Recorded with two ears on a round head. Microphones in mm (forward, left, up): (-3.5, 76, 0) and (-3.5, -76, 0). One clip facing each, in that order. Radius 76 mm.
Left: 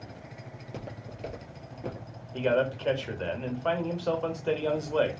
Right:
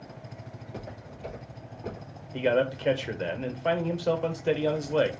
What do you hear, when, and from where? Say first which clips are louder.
0.5 s footsteps: even; 35° left (ahead or behind), 2 m; by 2.1 s 40° left (ahead or behind), 2 m
2.3 s a man speaking: right 1 dB; 15° right (ahead or behind), 0.8 m